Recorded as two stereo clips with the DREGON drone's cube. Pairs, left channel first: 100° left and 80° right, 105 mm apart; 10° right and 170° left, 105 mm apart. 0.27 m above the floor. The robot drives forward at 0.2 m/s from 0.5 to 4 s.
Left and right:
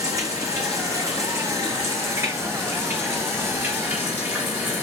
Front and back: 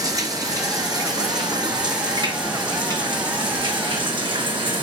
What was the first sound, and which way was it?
Running water, 135° right.